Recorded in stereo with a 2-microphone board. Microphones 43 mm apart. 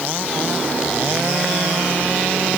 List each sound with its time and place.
Only background noise.